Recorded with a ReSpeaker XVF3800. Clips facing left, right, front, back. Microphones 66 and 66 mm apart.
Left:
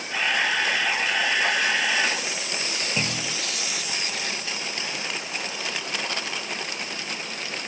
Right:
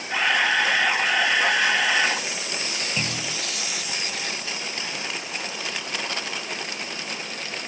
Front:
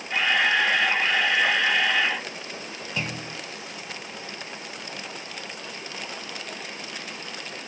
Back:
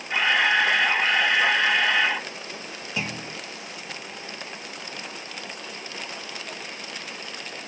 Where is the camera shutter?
115° right, 2 m.